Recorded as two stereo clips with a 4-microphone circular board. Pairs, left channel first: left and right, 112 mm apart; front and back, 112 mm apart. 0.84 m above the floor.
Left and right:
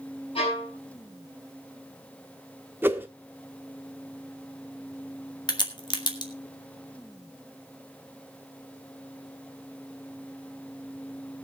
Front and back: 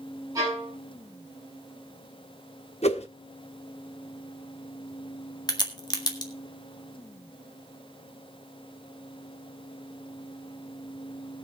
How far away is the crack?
About 1.7 m.